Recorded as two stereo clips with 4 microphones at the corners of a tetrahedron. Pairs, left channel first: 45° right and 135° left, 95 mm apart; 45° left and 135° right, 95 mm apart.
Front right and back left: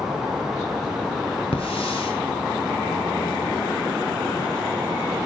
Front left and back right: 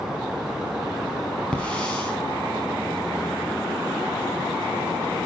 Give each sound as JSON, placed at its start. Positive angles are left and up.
{"t": 1.5, "sound": "a hiss", "azimuth_deg": -35, "distance_m": 5.5}